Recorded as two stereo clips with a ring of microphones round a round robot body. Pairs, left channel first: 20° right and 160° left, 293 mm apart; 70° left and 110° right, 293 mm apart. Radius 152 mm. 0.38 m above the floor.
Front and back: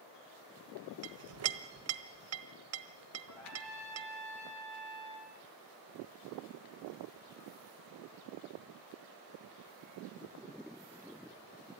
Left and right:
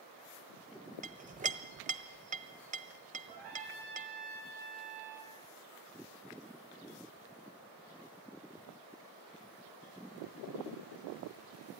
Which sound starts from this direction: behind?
A clink, at 1.0 s.